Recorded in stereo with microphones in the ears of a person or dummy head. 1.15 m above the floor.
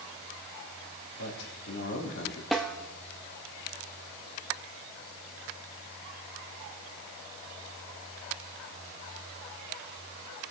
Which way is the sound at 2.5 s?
Centre (ahead or behind).